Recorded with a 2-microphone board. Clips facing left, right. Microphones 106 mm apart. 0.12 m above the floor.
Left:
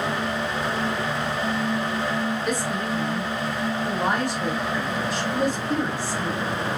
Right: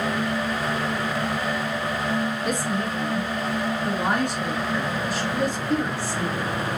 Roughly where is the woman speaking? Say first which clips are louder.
Even; right.